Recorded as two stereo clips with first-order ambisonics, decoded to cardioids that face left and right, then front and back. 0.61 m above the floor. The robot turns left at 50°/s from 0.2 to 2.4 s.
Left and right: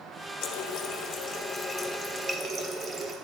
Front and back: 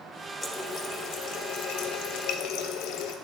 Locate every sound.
0.4 s a running tap: 80° left, 0.8 m; by 3.1 s 20° right, 0.8 m